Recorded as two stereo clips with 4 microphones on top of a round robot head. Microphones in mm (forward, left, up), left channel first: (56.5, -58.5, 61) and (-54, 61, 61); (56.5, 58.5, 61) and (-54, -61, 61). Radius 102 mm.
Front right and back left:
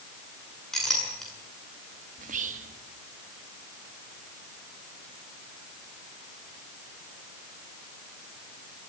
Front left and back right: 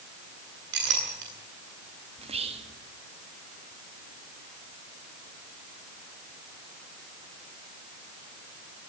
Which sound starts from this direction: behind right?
A clink, at 0.7 s.